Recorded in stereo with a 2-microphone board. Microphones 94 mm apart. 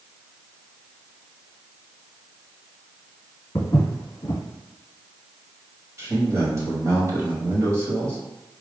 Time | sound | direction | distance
3.5 | footsteps | 35° left (ahead or behind) | 1.5 m
6.0 | a man speaking | 30° right (ahead or behind) | 1.4 m